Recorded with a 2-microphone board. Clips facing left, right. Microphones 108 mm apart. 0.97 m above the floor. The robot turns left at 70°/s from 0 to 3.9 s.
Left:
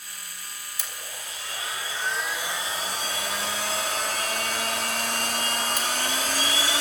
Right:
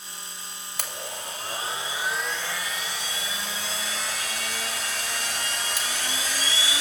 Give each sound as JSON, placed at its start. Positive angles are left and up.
{"t": 0.8, "sound": "a blender", "azimuth_deg": -80, "distance_m": 2.5}